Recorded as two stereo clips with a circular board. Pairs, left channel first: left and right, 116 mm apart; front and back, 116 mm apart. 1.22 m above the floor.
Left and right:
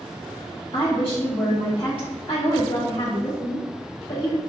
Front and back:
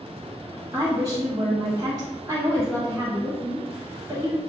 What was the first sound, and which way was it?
A woman speaking, 125° left.